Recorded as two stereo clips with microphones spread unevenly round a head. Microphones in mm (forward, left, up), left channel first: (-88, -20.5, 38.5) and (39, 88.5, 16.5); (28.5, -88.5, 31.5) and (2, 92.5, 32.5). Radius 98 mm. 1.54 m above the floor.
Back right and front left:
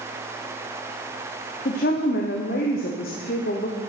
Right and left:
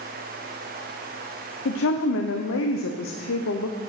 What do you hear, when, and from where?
1.6 s a woman speaking: 95° right, 0.9 m